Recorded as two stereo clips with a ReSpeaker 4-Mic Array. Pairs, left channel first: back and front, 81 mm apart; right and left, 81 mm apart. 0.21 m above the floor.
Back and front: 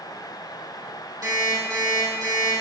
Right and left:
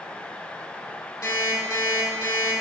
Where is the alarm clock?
50° right, 3.5 m.